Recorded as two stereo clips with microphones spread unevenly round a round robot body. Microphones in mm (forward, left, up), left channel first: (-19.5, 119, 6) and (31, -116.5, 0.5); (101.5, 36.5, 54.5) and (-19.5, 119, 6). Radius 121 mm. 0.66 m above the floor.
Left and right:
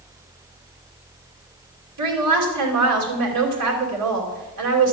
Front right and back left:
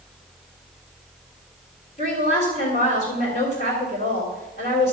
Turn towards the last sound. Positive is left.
turn(degrees=-90)